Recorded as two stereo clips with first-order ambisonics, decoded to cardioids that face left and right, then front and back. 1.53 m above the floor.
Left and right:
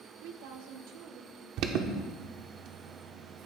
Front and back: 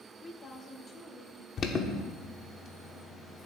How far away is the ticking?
I don't hear ticking.